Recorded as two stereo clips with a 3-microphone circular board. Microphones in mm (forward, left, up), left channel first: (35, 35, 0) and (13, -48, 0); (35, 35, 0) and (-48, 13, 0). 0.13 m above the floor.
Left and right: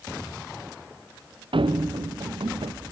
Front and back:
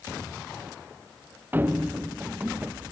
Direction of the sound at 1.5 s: 100° right.